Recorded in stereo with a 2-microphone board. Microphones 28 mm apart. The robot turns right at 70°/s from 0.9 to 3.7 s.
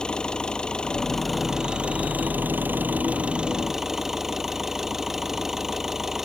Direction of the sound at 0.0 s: 150° left.